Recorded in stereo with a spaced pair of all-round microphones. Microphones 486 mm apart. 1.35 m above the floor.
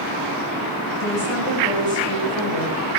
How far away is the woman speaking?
About 8 m.